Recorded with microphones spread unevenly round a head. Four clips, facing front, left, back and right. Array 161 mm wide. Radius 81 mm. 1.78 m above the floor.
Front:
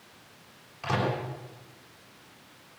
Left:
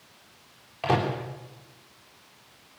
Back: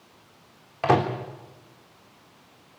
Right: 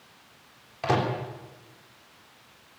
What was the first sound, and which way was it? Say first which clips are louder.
A microwave: even, back 8 dB; straight behind.